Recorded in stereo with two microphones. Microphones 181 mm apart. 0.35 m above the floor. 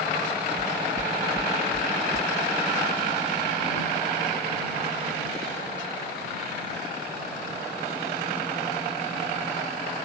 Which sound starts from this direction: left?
Knocking, at 0.6 s.